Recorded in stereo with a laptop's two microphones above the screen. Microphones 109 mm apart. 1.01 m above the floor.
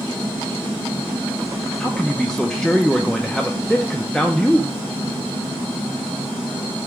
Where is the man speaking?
5° left (ahead or behind), 0.5 m.